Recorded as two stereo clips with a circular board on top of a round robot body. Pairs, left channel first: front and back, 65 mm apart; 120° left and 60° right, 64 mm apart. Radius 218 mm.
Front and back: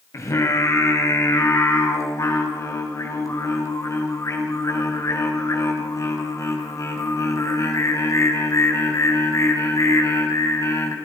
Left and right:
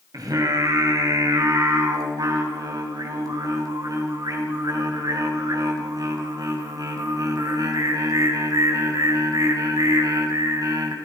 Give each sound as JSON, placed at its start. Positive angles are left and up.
{"t": 0.1, "sound": "singing", "azimuth_deg": -40, "distance_m": 3.5}